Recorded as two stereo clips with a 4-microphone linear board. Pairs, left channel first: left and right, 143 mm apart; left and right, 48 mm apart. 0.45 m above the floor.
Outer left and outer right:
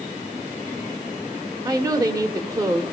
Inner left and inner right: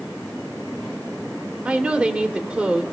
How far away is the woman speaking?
About 1.2 m.